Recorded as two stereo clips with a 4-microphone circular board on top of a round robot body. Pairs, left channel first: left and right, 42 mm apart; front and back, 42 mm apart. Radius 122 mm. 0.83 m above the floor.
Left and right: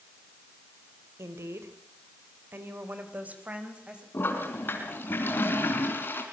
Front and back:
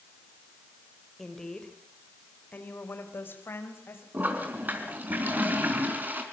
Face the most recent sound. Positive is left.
turn(degrees=135)